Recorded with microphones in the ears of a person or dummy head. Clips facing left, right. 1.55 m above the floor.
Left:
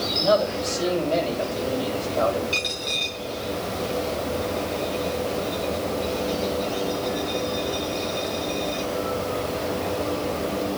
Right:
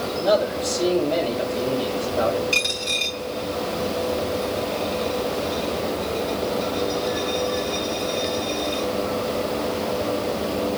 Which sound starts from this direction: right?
A dropped coin, at 2.5 s.